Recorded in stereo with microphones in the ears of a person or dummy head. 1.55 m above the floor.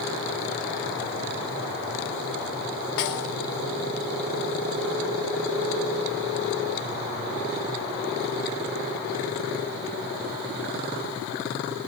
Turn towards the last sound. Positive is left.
turn(degrees=65)  # may be behind; listen again after turning